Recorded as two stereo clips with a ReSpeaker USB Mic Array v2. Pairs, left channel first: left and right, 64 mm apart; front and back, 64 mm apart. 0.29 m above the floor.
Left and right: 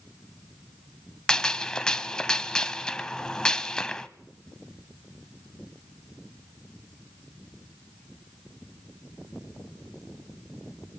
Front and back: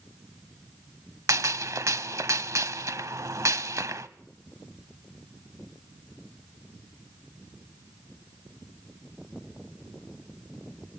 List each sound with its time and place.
1.3 s a gunshot: 165° left, 0.8 m